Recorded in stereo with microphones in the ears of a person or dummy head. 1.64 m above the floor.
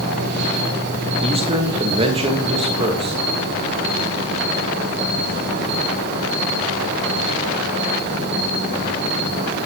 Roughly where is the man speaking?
Right.